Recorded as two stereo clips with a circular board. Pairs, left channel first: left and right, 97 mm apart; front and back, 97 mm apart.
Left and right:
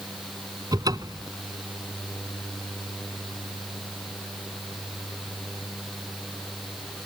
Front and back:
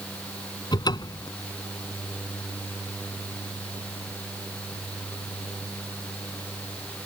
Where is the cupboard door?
40° right.